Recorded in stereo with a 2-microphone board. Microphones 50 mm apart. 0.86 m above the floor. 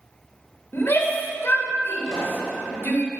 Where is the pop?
20° left (ahead or behind), 5 m.